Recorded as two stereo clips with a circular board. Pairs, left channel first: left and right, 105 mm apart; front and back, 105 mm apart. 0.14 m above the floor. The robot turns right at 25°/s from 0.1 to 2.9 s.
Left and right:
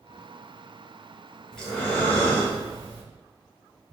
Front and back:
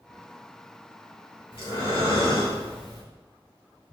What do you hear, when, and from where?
1.5 s breathing: 5° left, 1.9 m; by 3.0 s 40° left, 1.9 m